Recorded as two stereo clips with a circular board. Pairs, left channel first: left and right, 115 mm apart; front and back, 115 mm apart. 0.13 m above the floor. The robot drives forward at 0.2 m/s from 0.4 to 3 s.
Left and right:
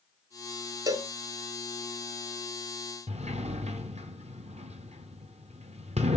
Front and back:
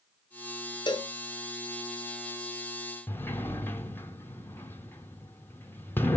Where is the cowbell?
40° right, 0.9 m.